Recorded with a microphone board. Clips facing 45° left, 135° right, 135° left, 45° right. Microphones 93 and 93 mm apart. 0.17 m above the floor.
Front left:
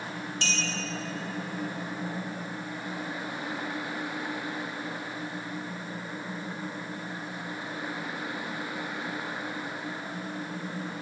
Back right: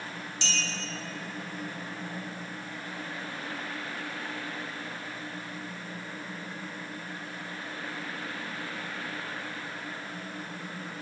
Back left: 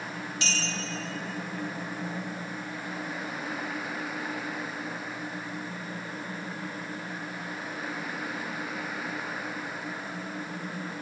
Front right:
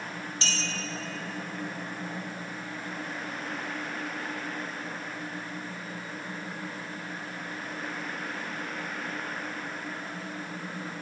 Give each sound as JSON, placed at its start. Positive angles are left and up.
{"t": 0.4, "sound": "a clink", "azimuth_deg": 10, "distance_m": 2.5}